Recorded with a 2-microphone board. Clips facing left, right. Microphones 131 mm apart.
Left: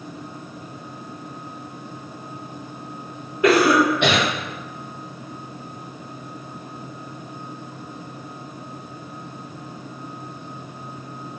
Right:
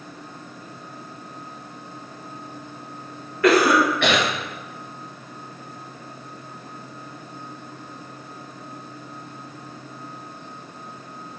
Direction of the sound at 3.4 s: 20° left (ahead or behind).